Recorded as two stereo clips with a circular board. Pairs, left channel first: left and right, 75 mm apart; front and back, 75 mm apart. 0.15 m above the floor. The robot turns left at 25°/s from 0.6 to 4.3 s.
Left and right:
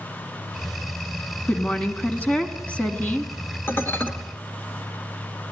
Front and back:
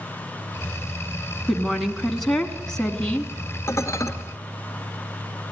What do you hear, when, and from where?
1.5 s a woman speaking: 95° left, 1.3 m; by 3.3 s 50° left, 1.3 m
3.7 s dishes clattering: 40° left, 1.6 m; by 4.1 s 30° left, 1.6 m